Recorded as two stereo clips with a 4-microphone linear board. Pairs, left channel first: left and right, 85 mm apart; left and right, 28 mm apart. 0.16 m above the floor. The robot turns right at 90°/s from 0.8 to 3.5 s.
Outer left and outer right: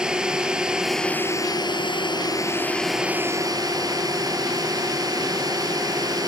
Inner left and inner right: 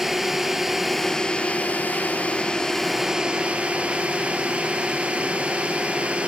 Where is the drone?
10° right; by 6.3 s 125° right.